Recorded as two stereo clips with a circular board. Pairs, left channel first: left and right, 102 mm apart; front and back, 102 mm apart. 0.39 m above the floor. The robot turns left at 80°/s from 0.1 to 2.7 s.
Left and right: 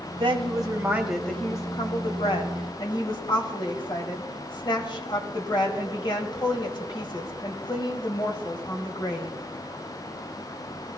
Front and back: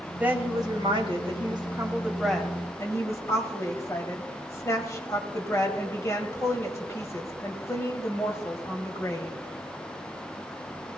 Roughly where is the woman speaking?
Right.